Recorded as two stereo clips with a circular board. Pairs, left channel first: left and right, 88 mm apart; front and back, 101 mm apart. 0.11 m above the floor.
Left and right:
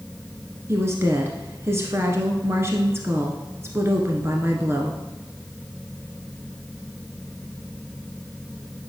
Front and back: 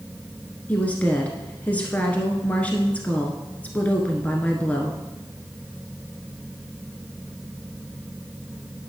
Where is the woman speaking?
65° right, 1.2 m.